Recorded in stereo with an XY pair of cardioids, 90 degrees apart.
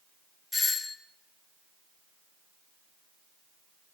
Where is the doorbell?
35° left, 1.4 m.